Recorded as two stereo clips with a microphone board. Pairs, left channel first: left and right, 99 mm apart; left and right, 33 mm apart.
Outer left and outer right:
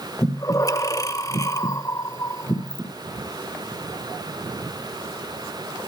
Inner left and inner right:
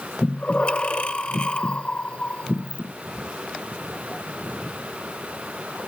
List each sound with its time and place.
0.2 s breathing: 35° left (ahead or behind), 1.8 m